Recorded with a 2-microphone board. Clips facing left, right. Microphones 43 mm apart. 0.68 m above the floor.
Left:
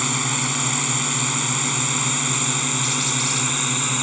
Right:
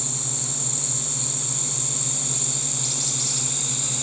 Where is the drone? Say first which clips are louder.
Left 12 dB; 70° left (ahead or behind); by 4.0 s 50° left (ahead or behind).